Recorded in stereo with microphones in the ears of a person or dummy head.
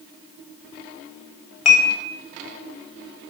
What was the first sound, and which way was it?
Dishes clattering, 40° left (ahead or behind).